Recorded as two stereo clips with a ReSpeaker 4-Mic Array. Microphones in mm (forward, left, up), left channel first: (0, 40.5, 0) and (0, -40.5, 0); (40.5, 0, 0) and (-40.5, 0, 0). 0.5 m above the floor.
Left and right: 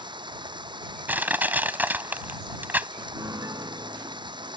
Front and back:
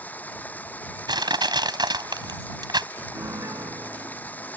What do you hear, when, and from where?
0.0 s running water: 70° right
1.1 s crushing: 155° right
3.1 s a piano: 135° right